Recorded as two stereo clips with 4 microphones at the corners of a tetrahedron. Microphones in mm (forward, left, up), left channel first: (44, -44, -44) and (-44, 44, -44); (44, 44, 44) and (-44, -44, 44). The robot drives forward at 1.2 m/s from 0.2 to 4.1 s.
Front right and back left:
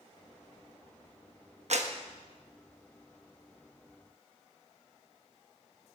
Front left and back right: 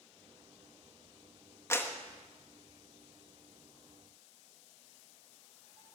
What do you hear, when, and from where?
1.7 s a clap: 110° left, 1.2 m; by 1.9 s 125° left, 1.3 m